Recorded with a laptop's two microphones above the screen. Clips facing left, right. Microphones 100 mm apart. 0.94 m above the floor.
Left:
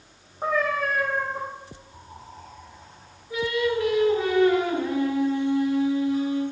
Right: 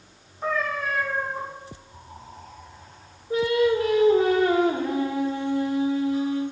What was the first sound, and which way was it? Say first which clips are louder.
A cat meowing: left 2 dB; 55° left (ahead or behind).